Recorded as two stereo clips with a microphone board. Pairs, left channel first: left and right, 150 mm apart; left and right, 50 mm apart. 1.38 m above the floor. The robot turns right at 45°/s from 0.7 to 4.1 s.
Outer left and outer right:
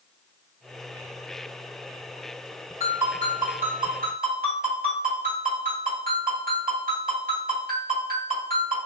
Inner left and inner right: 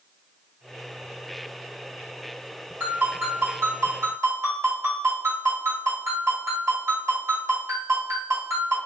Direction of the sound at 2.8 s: 145° right.